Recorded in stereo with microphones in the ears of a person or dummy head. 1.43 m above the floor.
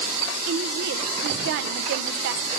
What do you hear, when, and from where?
0.5 s a woman speaking: 55° right (ahead or behind), 0.5 m